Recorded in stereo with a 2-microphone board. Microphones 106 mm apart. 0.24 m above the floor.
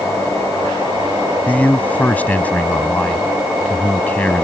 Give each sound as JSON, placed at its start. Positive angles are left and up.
{"t": 1.5, "sound": "a man speaking", "side_deg": 15}